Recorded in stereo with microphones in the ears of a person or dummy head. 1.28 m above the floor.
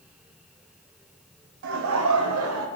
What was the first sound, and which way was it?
Laughter, 60° right (ahead or behind).